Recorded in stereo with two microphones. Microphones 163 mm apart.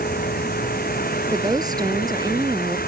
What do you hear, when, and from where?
0.0 s a vehicle: 70° left (ahead or behind)
1.3 s a woman speaking: 25° right (ahead or behind)